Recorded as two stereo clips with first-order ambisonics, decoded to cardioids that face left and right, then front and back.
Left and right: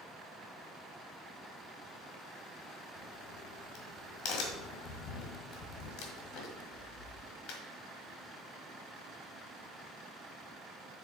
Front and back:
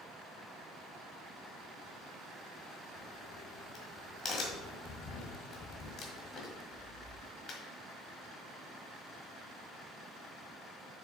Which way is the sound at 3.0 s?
60° left.